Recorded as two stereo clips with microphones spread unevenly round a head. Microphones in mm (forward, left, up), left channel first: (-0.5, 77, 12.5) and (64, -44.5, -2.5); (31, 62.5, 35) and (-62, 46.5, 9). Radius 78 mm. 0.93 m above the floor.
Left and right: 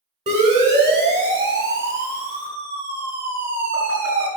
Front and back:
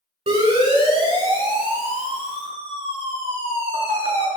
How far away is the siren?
About 8 m.